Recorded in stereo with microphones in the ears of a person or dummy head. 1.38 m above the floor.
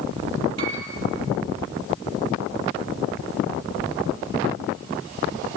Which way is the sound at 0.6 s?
65° right (ahead or behind).